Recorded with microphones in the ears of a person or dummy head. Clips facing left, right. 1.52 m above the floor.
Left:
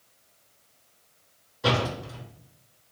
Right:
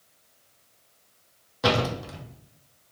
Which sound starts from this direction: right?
A door slam, at 1.6 s.